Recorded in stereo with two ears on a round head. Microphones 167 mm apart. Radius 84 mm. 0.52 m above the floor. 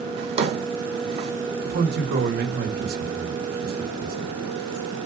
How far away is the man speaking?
About 1.4 m.